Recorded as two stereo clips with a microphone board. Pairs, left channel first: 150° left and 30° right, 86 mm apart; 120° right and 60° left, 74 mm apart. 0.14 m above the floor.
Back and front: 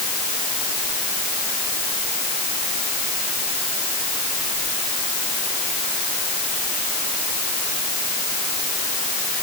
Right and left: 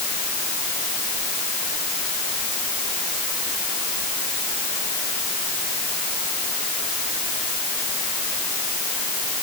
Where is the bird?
No bird in this recording.